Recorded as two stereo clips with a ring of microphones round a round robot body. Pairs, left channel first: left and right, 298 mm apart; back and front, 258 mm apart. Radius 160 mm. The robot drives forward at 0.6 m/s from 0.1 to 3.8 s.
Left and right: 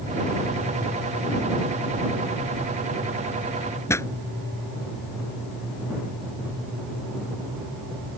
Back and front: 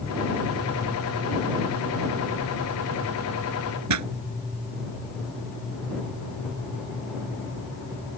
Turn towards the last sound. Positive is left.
turn(degrees=10)